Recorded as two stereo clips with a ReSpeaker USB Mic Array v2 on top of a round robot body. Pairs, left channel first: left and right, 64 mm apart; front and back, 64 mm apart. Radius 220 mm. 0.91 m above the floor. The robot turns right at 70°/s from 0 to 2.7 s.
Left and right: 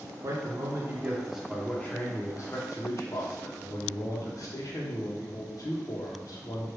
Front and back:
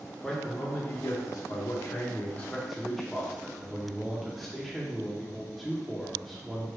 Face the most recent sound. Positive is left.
turn(degrees=85)